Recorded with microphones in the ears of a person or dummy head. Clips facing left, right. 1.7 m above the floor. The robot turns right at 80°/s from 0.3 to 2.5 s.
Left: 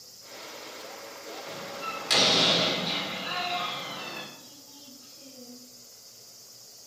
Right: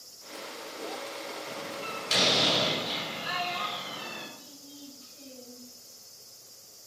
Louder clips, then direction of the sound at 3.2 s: Left 1 dB; 35° right (ahead or behind).